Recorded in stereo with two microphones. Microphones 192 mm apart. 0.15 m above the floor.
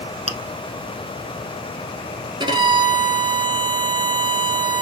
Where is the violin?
25° right (ahead or behind), 1.0 m.